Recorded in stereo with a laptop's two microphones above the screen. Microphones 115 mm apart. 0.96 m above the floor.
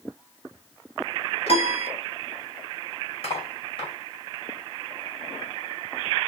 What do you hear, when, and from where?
1.5 s a piano: 55° left (ahead or behind), 2.5 m
3.2 s cutlery clinking: 50° left (ahead or behind), 1.9 m